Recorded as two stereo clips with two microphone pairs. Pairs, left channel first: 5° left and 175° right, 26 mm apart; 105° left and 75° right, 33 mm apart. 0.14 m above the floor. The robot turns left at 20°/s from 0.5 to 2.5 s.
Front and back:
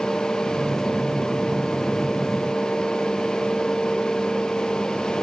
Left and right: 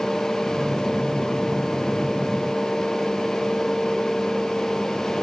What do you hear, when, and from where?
Only background noise.